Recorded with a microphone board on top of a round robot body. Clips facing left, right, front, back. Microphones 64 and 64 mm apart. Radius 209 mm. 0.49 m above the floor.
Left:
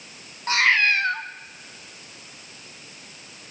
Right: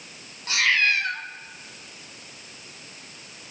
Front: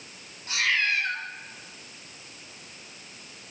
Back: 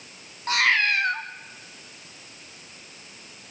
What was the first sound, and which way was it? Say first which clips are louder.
A cat meowing: left 3 dB, back 4 dB; 145° left.